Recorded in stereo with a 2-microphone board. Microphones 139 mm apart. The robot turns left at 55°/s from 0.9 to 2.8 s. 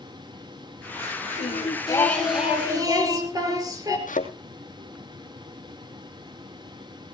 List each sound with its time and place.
1.4 s singing: 50° left, 5 m; by 4.0 s 25° right, 5 m
4.1 s a thud: 75° left (ahead or behind), 3 m